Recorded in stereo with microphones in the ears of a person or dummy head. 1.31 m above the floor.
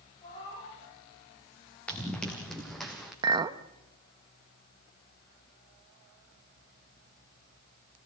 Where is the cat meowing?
25° left (ahead or behind), 8.5 m.